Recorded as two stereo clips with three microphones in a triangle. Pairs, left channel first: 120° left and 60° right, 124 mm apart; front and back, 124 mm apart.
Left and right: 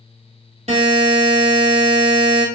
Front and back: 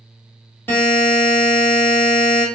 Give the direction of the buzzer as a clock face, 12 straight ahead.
2 o'clock.